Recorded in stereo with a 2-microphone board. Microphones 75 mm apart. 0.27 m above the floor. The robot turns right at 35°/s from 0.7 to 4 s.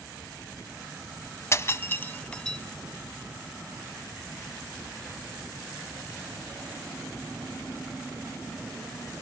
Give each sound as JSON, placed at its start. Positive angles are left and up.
{"t": 1.5, "sound": "breaking glass", "side_deg": 35, "distance_m": 1.0}